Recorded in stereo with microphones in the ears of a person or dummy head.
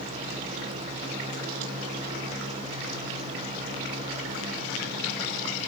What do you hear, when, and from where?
Only background noise.